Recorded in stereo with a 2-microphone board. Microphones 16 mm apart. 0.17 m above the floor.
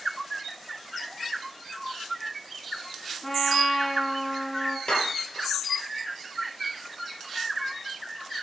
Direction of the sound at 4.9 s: 65° left (ahead or behind).